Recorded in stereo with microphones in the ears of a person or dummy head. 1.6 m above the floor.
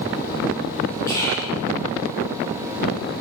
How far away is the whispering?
About 1.1 m.